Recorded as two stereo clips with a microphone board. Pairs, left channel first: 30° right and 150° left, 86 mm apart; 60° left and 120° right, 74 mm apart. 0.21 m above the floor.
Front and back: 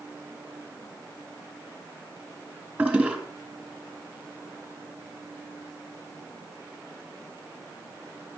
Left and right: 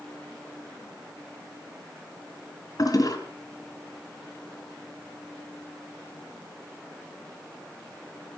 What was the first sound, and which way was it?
A toilet flushing, 80° left.